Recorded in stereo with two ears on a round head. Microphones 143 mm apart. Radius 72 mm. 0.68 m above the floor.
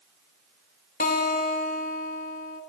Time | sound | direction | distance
1.0 | a guitar | 55° left (ahead or behind) | 2 m